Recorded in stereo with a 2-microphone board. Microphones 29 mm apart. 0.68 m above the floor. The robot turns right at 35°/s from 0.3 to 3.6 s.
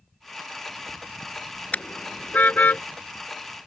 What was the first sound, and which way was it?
A car horn, 55° left (ahead or behind).